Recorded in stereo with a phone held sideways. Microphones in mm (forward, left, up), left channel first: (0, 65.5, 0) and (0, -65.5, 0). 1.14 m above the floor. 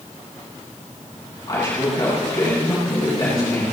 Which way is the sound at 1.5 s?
30° left (ahead or behind).